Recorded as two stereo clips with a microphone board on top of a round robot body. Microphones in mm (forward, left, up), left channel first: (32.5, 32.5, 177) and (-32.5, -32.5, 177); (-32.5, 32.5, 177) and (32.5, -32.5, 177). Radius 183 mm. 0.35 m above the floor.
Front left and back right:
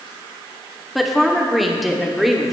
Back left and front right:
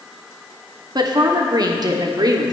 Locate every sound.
0.9 s a woman speaking: 45° right, 1.8 m